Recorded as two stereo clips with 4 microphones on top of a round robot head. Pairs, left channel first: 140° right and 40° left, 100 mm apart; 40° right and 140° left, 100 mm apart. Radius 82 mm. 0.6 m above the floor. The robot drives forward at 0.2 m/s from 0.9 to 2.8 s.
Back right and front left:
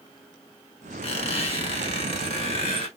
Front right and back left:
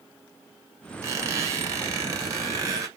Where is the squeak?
160° right, 1.5 m; by 2.9 s 165° right, 1.9 m.